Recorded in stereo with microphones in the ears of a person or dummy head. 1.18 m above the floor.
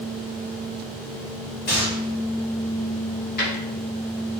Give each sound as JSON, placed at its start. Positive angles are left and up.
{"t": 1.7, "sound": "a gunshot", "side_deg": 55, "distance_m": 1.6}
{"t": 3.4, "sound": "a drawer", "side_deg": 50, "distance_m": 1.2}